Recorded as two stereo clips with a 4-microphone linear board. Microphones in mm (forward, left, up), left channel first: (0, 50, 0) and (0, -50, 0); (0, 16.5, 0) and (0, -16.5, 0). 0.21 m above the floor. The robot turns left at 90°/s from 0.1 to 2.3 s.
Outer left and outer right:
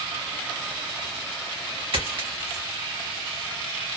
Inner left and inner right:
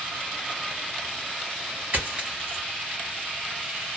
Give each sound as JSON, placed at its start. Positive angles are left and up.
{"t": 1.9, "sound": "a dropped coin", "side_deg": -60, "distance_m": 2.0}